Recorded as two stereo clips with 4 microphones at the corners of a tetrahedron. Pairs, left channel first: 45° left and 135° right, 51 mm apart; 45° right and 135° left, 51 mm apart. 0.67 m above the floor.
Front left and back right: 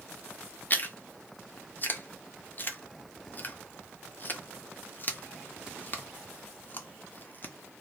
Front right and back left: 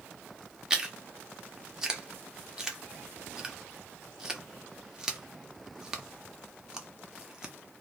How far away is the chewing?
About 0.9 m.